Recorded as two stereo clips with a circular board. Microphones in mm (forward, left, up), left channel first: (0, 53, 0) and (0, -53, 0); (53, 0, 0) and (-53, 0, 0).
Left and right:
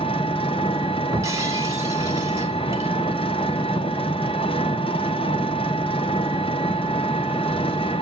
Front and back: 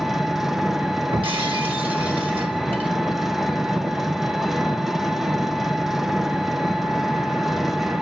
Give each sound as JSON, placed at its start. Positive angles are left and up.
{"t": 0.0, "sound": "an engine running", "azimuth_deg": 95, "distance_m": 0.8}
{"t": 1.1, "sound": "breaking glass", "azimuth_deg": -150, "distance_m": 2.5}